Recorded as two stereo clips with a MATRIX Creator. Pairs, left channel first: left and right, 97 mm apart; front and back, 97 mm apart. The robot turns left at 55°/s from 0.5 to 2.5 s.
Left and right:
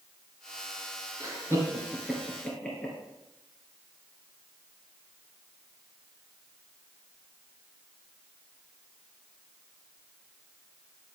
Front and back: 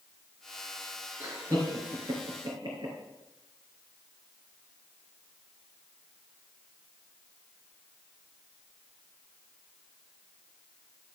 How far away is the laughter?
About 2.5 m.